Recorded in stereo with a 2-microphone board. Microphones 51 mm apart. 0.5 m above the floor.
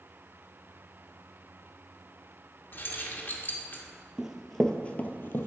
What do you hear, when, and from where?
2.7 s keys jangling: 40° left (ahead or behind), 0.8 m
4.2 s running footsteps: 10° right (ahead or behind), 0.6 m; by 5.5 s 50° left (ahead or behind), 0.7 m